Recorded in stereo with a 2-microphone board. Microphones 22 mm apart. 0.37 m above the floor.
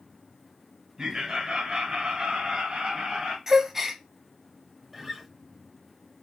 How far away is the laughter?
About 1.2 m.